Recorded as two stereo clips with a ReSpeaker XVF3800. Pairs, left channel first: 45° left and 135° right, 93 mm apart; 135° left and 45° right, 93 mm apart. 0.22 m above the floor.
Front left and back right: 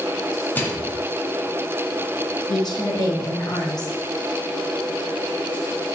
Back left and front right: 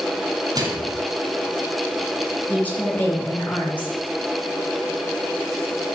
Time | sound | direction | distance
0.6 | a microwave | 20° right | 1.9 m
2.5 | a woman speaking | 65° left | 3 m